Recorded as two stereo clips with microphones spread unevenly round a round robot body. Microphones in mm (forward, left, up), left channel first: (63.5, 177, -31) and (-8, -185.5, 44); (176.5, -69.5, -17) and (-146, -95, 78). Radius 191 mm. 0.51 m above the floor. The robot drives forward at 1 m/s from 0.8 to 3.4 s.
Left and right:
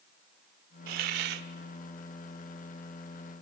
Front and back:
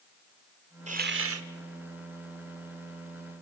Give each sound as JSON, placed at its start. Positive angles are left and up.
{"t": 0.9, "sound": "a hiss", "azimuth_deg": -100, "distance_m": 1.1}